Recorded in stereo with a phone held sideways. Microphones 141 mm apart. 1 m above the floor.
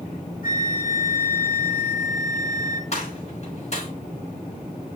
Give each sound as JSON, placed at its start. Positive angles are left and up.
{"t": 0.4, "sound": "a flute", "side_deg": 65, "distance_m": 1.6}
{"t": 2.9, "sound": "a gunshot", "side_deg": 50, "distance_m": 6.5}